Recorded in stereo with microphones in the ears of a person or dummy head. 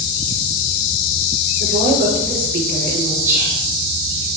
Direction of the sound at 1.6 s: 45° right (ahead or behind).